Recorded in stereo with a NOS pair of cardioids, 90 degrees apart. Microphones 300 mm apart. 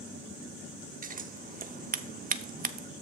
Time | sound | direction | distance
1.0 | scissors | 30° right | 0.6 m